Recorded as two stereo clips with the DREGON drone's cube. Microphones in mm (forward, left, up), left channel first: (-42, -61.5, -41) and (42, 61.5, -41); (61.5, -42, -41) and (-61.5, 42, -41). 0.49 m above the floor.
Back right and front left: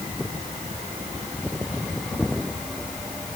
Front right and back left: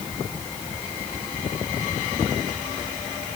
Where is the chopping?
No chopping in this recording.